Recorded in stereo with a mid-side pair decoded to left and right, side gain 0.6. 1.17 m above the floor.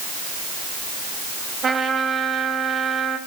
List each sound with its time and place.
1.6 s a trumpet: 30° right, 4 m